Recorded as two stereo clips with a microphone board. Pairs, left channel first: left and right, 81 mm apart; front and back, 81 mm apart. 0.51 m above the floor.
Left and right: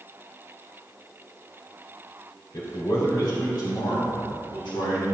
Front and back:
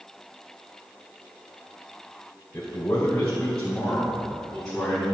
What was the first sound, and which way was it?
A man speaking, 65° left.